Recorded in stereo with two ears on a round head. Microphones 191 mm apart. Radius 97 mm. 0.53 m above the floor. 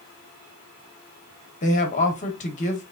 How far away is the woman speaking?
About 1.0 m.